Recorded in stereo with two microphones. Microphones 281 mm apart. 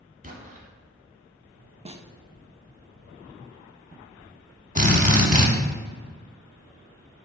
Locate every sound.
0.2 s an explosion: 30° right (ahead or behind), 1.1 m
1.9 s a snare drum: 20° right (ahead or behind), 0.5 m
4.8 s a drill: 25° right (ahead or behind), 1.0 m